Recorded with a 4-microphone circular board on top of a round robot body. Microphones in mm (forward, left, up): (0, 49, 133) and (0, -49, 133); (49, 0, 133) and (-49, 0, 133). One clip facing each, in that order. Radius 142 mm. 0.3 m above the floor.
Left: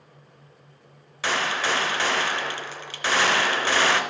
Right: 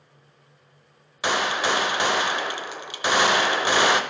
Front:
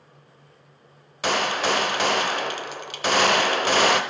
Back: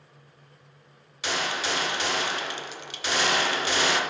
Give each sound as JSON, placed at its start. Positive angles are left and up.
{"t": 1.2, "sound": "a gunshot", "azimuth_deg": -20, "distance_m": 1.0}